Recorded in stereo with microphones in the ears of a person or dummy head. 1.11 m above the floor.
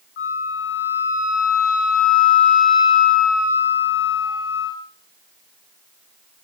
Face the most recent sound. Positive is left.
turn(degrees=55)  # may be behind; listen again after turning